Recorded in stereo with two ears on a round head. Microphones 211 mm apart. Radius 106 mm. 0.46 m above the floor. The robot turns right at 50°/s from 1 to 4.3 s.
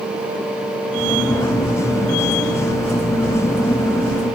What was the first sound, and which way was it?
Only background noise.